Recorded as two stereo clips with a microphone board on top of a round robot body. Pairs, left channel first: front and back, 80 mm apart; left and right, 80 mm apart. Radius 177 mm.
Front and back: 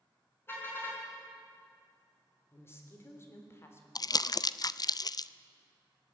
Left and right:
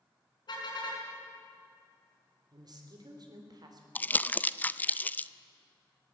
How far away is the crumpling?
About 0.6 m.